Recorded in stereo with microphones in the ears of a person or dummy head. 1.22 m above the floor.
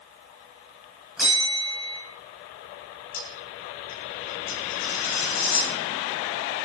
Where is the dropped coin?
55° left (ahead or behind), 3.5 m.